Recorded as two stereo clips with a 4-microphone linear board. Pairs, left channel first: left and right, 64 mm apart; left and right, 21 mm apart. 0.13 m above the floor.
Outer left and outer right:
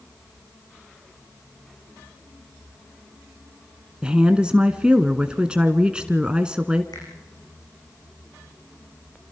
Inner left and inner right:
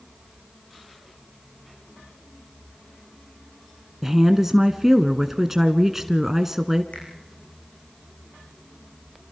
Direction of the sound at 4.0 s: 15° right (ahead or behind).